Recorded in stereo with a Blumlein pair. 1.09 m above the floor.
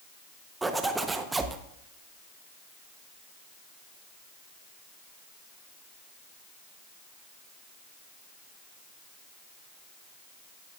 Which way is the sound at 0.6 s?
10° right.